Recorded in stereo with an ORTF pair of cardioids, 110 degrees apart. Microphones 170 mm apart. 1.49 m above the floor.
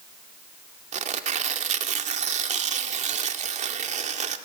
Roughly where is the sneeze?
I don't hear a sneeze.